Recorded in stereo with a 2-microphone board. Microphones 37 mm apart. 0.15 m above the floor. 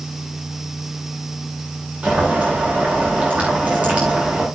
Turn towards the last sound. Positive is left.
turn(degrees=-35)  # may be behind; listen again after turning